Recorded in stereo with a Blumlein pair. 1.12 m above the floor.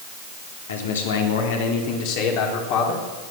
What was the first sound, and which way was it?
A man speaking, 60° left.